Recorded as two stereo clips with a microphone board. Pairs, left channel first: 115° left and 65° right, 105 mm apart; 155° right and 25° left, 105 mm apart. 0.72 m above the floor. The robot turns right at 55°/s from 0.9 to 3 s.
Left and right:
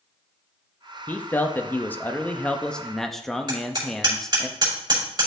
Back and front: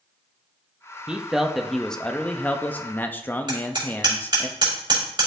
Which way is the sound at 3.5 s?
20° right.